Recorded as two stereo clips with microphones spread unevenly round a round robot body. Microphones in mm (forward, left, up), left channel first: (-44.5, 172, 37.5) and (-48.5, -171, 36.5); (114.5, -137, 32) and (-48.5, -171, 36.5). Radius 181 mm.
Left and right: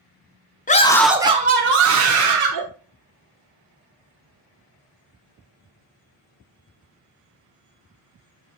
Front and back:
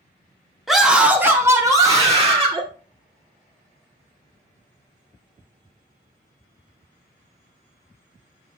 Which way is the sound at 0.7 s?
100° left.